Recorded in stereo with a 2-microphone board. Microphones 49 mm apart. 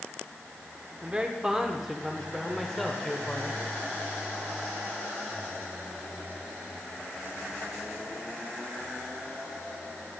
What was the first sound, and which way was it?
A man speaking, 25° right (ahead or behind).